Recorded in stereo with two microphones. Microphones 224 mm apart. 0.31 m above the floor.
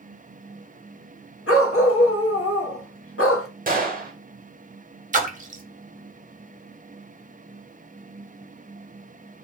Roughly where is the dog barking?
Left.